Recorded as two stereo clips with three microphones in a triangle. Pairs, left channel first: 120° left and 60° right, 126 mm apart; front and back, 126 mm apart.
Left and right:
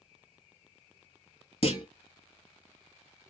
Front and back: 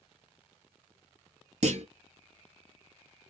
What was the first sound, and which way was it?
A clunk, 155° left.